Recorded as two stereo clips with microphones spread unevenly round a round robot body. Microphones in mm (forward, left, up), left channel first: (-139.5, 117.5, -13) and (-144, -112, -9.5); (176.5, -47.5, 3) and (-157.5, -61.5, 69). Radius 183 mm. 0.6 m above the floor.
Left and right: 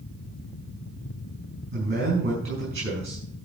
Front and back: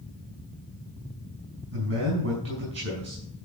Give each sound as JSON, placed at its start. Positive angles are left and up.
{"t": 1.7, "sound": "a man speaking", "azimuth_deg": -130, "distance_m": 6.0}